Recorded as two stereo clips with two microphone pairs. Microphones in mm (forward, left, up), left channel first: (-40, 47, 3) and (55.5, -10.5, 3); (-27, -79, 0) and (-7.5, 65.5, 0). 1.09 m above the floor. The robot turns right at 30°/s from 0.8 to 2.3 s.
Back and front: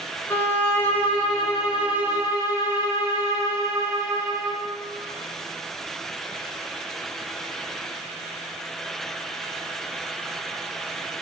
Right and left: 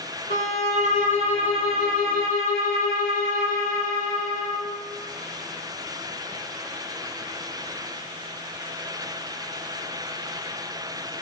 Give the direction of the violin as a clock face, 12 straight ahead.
5 o'clock.